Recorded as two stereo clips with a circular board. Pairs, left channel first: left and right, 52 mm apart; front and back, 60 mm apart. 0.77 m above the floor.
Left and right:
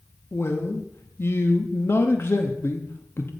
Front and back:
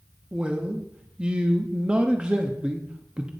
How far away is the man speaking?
About 0.8 m.